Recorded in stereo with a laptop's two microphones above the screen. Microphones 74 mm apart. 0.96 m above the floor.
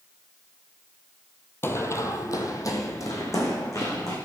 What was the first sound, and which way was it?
Running footsteps, 35° left (ahead or behind).